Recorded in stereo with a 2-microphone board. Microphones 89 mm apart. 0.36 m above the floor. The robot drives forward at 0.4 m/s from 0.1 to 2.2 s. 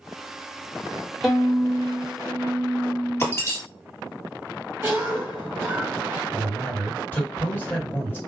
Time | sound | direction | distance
1.2 | a violin | centre (ahead or behind) | 1.1 m
3.2 | breaking glass | 30° left (ahead or behind) | 1.8 m
4.8 | a cough | 30° right (ahead or behind) | 1.6 m
6.3 | a man speaking | 25° left (ahead or behind) | 1.9 m